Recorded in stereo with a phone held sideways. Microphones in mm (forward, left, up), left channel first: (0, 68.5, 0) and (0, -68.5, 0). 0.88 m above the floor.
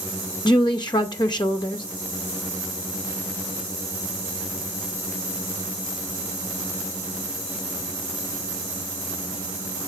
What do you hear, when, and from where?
0.5 s a woman speaking: 35° left (ahead or behind), 0.6 m